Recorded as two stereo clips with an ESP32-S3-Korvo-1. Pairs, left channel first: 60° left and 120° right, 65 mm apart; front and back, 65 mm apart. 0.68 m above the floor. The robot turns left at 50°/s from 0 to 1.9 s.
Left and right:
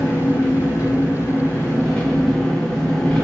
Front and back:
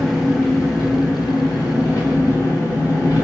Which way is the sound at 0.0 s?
80° left.